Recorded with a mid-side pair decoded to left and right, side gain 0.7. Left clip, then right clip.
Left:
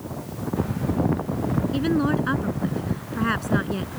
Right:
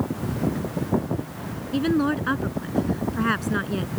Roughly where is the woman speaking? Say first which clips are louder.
Right 2 dB; ahead.